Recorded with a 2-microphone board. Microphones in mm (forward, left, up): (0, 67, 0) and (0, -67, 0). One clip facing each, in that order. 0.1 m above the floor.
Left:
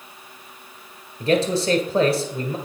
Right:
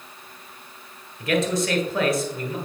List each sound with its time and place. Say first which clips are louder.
1.2 s a man speaking: left 3 dB; 30° left (ahead or behind), 1.4 m